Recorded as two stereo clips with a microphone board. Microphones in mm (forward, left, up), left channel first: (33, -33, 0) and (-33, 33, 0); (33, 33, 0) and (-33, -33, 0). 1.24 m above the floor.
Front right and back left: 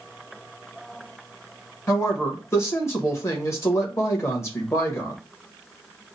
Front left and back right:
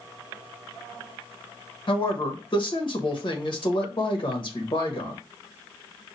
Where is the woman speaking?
15° left, 1.2 m.